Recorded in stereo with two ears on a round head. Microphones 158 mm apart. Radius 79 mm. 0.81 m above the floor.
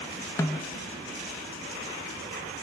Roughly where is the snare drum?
Centre.